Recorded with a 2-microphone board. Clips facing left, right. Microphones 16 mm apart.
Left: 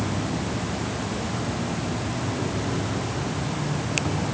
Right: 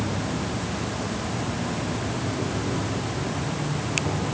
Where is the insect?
Centre (ahead or behind), 3.5 m.